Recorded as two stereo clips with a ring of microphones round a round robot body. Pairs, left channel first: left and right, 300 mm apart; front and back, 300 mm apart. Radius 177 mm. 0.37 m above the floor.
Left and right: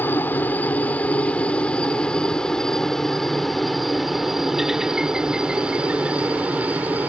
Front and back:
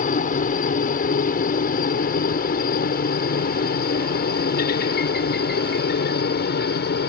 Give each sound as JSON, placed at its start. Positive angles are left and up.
{"t": 0.0, "sound": "a helicopter", "azimuth_deg": 15}